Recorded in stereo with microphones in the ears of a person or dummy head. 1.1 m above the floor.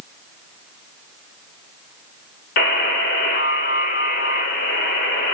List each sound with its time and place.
2.6 s a buzzer: 55° left (ahead or behind), 0.7 m